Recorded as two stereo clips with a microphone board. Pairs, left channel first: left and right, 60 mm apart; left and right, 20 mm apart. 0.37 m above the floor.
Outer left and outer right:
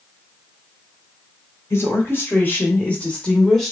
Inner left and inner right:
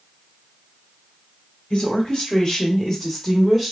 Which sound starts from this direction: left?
A woman speaking, at 1.7 s.